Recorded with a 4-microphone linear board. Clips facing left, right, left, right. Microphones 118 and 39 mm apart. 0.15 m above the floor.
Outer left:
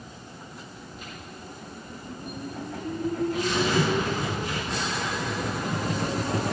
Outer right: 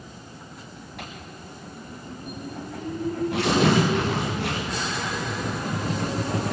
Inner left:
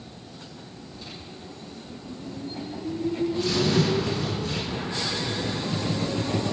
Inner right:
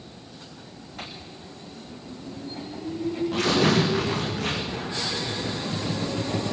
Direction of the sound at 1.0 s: 75° right (ahead or behind).